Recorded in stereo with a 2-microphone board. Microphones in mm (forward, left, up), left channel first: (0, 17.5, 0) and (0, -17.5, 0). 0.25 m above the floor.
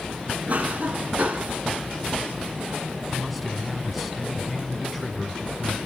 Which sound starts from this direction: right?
A cough, at 0.5 s.